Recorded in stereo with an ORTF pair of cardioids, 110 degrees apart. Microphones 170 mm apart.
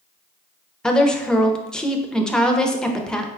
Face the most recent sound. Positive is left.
turn(degrees=5)